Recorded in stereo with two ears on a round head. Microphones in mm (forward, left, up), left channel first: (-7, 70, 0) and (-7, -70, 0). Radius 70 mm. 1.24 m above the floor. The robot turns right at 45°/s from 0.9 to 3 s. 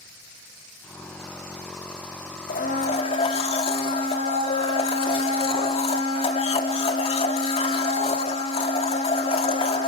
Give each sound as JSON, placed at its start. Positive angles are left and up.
{"t": 2.5, "sound": "a blender", "side_deg": 60, "distance_m": 2.0}